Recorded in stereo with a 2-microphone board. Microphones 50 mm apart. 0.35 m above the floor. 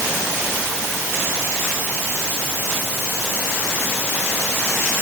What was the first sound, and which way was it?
Only background noise.